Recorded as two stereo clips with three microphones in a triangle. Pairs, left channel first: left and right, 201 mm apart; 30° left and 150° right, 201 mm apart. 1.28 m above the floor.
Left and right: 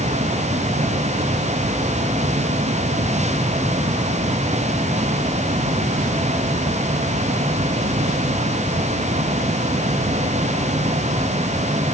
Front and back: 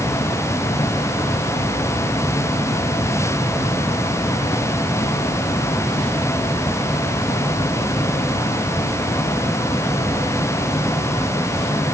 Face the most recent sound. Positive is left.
No sound to turn to.